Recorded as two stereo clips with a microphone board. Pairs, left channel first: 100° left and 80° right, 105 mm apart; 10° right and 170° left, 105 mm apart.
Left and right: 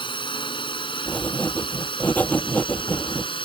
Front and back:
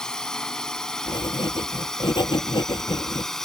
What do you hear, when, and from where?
0.0 s a drone: 75° left
1.1 s writing: 25° left